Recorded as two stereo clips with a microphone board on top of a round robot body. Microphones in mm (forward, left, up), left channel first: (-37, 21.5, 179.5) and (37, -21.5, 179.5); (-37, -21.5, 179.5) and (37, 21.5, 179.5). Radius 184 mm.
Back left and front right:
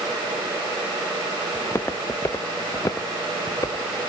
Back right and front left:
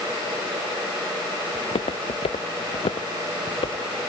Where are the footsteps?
145° right; by 4.1 s 160° right.